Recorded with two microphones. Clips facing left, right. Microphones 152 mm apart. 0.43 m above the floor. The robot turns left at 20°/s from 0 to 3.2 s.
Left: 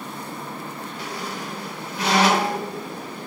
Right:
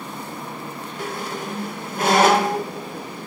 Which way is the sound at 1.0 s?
50° right (ahead or behind).